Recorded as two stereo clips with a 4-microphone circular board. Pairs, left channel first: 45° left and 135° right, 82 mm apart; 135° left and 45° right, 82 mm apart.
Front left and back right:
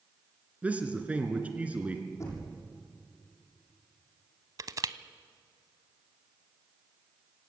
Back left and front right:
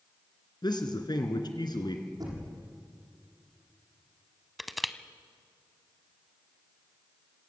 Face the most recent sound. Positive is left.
turn(degrees=-135)